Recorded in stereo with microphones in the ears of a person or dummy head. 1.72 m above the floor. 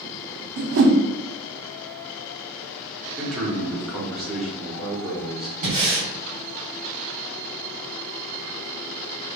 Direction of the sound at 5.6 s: 40° right (ahead or behind).